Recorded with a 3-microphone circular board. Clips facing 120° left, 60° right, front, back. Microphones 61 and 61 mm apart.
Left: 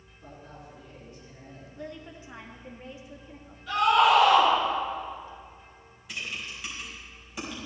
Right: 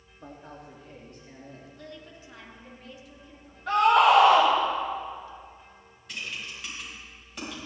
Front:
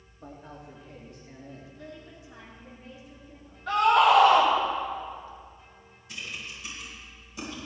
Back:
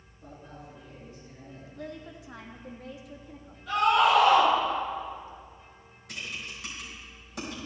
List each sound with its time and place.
0.2 s a man speaking: 30° right, 2.5 m
1.8 s a woman speaking: 175° right, 1.8 m
3.7 s a scream: 40° right, 6 m
6.1 s typing on a keyboard: 155° right, 5 m